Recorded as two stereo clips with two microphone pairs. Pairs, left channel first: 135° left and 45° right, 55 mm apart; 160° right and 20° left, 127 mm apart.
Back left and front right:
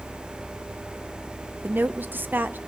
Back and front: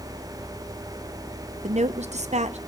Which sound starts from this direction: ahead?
A woman speaking, at 1.6 s.